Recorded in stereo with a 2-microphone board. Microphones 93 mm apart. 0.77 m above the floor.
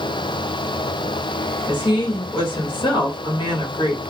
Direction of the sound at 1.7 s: 60° left (ahead or behind).